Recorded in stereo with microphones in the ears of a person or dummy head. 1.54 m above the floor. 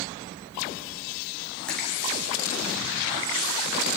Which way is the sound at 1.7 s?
5° left (ahead or behind).